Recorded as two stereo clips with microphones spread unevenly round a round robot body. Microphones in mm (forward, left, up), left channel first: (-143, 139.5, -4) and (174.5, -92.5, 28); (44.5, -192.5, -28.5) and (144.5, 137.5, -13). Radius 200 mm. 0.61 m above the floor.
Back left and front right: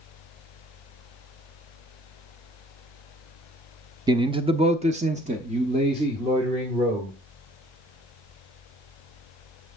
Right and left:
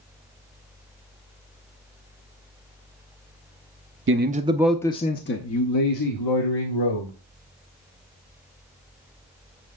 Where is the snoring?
No snoring in this recording.